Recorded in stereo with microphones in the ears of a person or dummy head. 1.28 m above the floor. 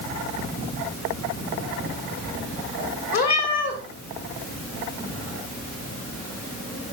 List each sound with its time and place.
3.1 s a cat meowing: 50° left (ahead or behind), 3 m